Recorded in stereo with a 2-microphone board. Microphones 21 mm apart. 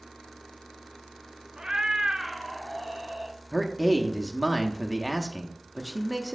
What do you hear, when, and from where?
1.6 s a cat meowing: 35° right (ahead or behind), 0.6 m
3.5 s a man speaking: centre (ahead or behind), 0.6 m